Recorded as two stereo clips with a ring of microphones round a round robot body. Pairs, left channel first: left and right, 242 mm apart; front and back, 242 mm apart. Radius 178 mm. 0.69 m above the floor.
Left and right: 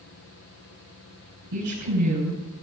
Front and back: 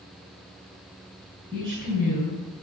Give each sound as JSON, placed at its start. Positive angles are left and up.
{"t": 1.5, "sound": "a woman speaking", "azimuth_deg": -105, "distance_m": 8.0}